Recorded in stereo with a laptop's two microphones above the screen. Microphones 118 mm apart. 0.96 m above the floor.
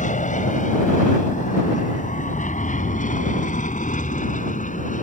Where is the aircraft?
75° left (ahead or behind); by 5.0 s 80° left.